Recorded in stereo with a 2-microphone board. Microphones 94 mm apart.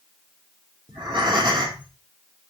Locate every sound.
0.9 s breathing: 55° right (ahead or behind), 3.5 m